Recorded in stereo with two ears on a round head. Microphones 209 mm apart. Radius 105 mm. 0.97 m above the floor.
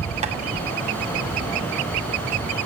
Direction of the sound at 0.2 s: 30° right (ahead or behind).